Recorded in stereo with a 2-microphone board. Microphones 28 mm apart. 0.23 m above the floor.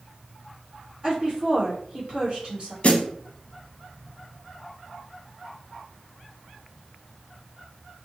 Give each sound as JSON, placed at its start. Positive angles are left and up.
{"t": 1.0, "sound": "a woman speaking", "side_deg": -35, "distance_m": 2.0}
{"t": 2.8, "sound": "a snare drum", "side_deg": 55, "distance_m": 0.5}